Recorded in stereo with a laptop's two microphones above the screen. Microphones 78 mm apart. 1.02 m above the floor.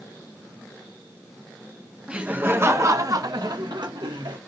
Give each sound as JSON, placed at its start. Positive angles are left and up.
{"t": 2.1, "sound": "laughter", "side_deg": -15, "distance_m": 0.8}